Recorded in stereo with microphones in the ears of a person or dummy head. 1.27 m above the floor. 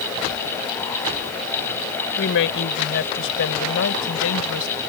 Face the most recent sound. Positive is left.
turn(degrees=75)  # may be behind; listen again after turning